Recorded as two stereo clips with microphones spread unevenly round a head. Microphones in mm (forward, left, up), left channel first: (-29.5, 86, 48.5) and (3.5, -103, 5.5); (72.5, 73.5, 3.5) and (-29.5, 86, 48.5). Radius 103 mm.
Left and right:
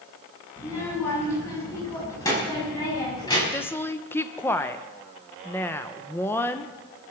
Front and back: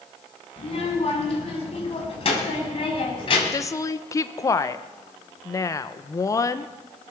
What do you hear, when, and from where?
0.6 s a child speaking: 25° left, 7.5 m; by 3.4 s 30° left, 6.5 m
3.5 s a woman speaking: 15° left, 0.9 m